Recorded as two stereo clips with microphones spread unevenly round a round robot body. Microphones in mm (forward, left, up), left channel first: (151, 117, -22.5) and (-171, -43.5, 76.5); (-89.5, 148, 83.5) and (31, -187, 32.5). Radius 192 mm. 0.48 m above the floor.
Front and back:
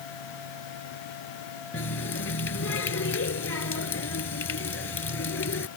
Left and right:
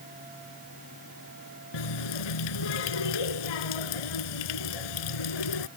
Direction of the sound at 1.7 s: 85° left.